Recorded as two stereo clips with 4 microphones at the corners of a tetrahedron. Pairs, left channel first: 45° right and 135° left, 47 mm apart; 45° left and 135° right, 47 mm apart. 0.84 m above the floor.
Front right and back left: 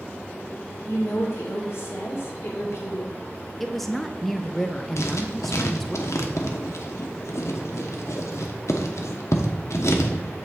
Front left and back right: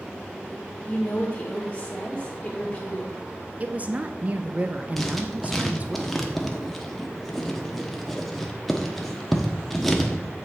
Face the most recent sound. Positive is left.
turn(degrees=-40)